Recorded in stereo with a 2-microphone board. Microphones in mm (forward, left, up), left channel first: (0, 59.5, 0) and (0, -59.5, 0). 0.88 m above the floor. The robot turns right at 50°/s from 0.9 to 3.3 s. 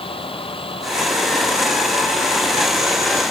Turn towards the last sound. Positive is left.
turn(degrees=170)